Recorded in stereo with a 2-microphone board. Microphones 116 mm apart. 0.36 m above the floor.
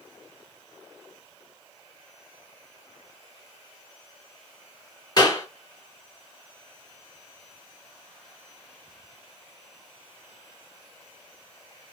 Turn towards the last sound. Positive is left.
turn(degrees=40)  # may be behind; listen again after turning